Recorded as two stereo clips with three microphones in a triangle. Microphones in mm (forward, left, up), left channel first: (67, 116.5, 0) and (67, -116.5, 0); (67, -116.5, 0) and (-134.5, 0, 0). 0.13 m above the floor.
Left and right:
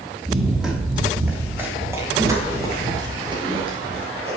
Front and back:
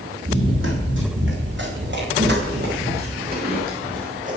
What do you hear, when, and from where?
0.2 s running footsteps: straight behind, 9 m; by 4.4 s 155° right, 9 m